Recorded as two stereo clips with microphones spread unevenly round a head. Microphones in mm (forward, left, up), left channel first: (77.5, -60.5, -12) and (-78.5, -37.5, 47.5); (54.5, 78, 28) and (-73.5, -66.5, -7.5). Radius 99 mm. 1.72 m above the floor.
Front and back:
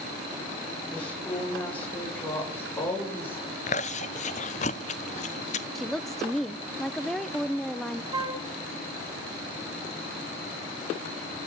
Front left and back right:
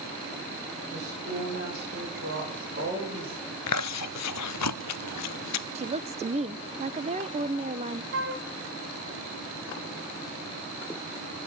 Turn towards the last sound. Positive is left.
turn(degrees=-155)